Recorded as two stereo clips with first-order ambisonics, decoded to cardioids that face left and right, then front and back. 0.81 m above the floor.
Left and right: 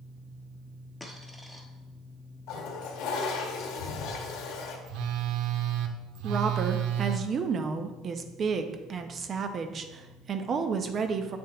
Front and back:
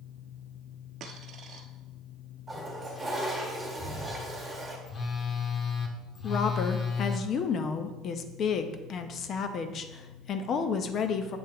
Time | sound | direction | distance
1.0 | a dropped coin | 170° left | 0.9 m
2.5 | a toilet flushing | 95° left | 1.4 m
4.9 | a phone buzzing | 65° right | 0.7 m
6.2 | a woman speaking | 40° right | 0.5 m